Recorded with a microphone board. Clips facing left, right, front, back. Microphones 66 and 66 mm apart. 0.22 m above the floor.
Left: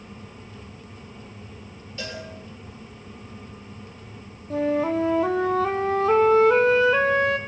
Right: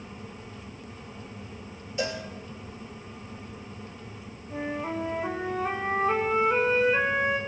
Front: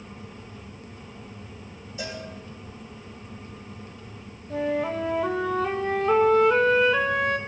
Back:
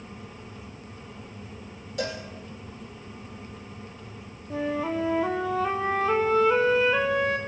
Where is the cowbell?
160° right, 7.5 m.